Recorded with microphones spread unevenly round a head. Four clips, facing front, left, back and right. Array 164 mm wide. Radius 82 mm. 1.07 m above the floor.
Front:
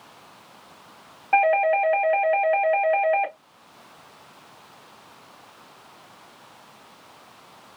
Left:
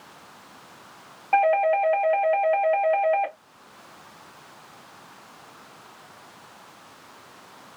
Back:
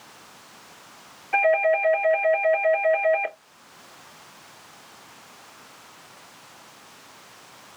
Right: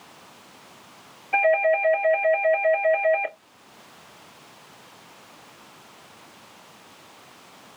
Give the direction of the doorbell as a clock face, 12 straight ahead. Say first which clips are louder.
Left 1 dB, front 1 dB; 11 o'clock.